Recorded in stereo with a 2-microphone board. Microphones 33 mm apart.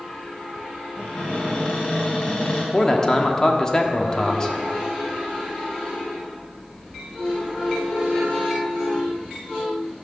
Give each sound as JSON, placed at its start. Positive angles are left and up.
{"t": 1.0, "sound": "a cupboard door", "side_deg": 35, "distance_m": 3.0}
{"t": 2.7, "sound": "a man speaking", "side_deg": 20, "distance_m": 1.1}